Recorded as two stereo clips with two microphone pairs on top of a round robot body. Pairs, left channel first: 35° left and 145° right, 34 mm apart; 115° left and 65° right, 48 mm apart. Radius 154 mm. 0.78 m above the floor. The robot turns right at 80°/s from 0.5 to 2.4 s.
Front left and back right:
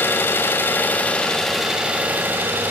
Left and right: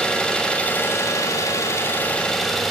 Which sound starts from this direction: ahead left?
An engine running, at 0.0 s.